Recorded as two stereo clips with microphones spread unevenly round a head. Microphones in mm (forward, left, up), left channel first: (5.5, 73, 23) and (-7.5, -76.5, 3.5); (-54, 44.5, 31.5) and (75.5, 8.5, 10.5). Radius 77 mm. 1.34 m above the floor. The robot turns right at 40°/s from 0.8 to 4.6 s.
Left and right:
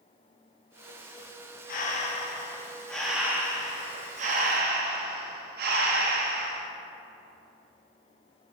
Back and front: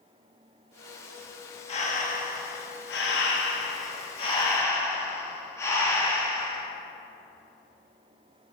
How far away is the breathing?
About 0.7 m.